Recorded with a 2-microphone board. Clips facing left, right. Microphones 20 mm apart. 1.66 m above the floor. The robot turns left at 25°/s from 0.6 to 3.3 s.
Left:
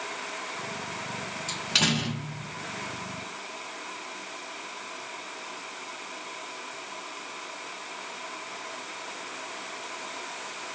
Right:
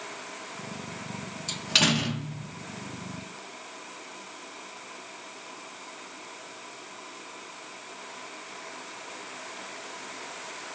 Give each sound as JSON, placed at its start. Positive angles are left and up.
{"t": 1.5, "sound": "a door slam", "side_deg": -10, "distance_m": 0.7}